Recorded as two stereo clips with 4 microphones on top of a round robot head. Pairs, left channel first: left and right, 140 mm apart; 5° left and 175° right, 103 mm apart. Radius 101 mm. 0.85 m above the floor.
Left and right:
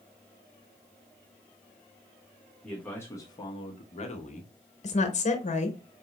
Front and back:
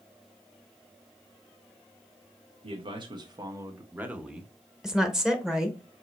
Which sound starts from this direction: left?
A woman speaking, at 4.8 s.